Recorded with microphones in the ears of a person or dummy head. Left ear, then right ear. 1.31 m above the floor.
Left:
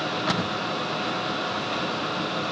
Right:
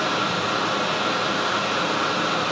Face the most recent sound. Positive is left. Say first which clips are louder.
# right 4 dB
turn(degrees=-60)  # may be behind; listen again after turning